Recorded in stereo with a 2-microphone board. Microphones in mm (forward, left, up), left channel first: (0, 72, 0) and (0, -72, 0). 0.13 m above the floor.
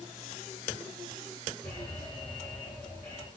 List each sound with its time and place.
1.6 s an alarm: 20° left (ahead or behind), 5.5 m